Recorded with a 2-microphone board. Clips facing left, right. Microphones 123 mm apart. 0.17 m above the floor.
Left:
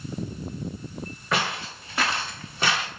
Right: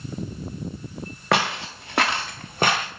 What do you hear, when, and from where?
1.3 s footsteps: 75° right (ahead or behind), 1.9 m; by 2.9 s 45° right (ahead or behind), 1.2 m